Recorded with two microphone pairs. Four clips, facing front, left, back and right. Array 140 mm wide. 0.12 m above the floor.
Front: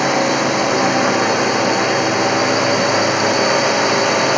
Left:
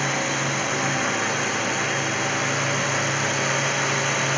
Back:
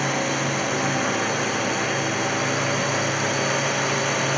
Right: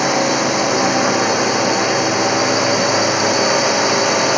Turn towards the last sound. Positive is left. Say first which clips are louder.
# right 9 dB, front 9 dB
turn(degrees=-45)